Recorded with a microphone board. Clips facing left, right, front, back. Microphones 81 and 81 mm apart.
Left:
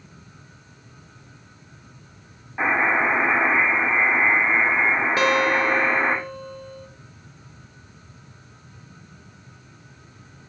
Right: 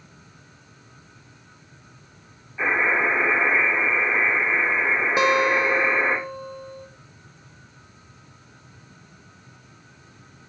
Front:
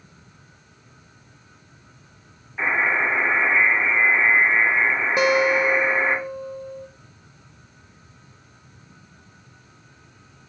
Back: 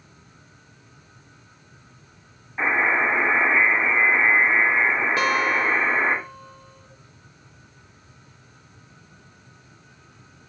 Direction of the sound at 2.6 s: 105° left.